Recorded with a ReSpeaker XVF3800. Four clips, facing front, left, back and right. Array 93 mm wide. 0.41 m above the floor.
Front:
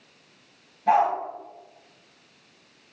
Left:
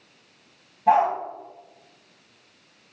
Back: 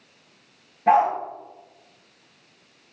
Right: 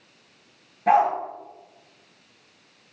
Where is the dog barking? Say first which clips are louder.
Even, back 2 dB; 130° right, 2 m.